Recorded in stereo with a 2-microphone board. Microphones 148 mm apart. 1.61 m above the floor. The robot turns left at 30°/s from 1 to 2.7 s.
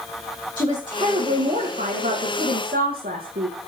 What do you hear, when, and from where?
0.6 s a woman speaking: 35° right, 2.5 m; by 3.6 s 85° right, 2.5 m